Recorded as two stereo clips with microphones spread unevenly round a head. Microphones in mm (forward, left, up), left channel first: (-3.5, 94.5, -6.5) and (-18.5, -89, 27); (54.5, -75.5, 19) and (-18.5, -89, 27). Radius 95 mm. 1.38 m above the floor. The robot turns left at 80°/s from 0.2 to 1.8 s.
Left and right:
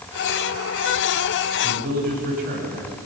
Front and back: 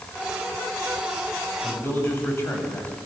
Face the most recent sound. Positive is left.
turn(degrees=-50)